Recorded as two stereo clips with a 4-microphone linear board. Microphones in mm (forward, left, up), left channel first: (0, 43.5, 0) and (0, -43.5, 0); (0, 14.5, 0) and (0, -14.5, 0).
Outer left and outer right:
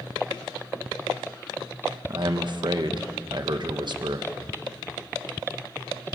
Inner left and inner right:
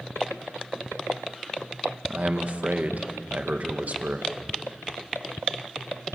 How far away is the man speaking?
About 1.5 m.